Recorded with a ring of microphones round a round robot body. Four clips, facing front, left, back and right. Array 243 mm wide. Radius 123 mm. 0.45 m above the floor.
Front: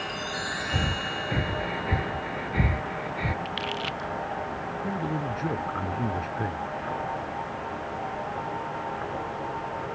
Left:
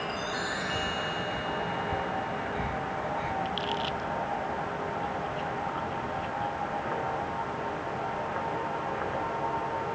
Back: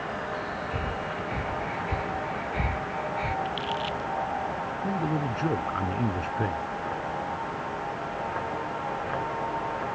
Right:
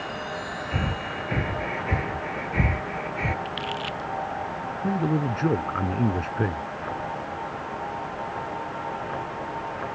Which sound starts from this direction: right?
A man speaking, at 4.8 s.